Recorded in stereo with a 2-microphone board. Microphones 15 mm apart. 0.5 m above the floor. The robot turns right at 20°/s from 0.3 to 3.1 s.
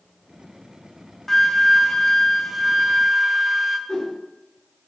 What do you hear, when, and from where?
1.3 s a flute: 165° left, 0.7 m; by 3.8 s 160° right, 0.7 m
3.9 s a whoosh: 45° left (ahead or behind), 2.5 m